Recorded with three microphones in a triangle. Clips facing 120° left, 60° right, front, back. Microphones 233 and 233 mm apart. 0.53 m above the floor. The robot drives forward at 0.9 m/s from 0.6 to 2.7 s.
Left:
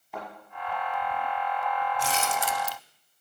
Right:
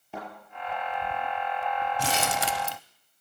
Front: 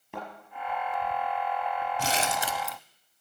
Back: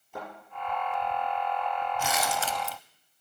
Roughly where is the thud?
Ahead.